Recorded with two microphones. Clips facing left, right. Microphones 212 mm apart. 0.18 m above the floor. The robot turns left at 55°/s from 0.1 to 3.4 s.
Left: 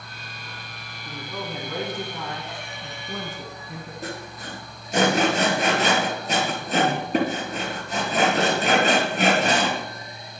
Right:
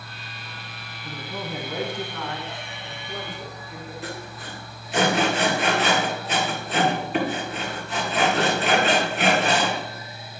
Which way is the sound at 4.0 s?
40° left (ahead or behind).